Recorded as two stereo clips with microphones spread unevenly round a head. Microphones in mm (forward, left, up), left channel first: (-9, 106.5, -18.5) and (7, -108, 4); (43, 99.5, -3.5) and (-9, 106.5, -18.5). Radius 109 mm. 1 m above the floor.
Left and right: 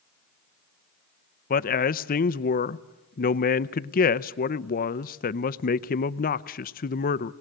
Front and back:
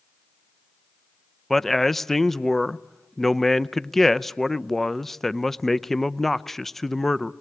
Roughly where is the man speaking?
Left.